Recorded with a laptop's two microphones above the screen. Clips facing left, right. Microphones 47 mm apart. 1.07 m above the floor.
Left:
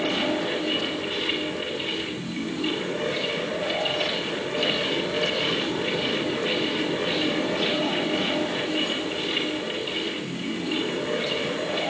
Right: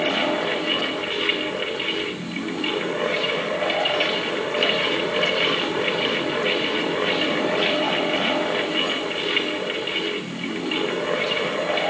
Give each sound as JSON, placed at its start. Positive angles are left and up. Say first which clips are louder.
{"t": 0.0, "sound": "a fan", "louder": "right 3 dB", "side_deg": -50, "distance_m": 1.6}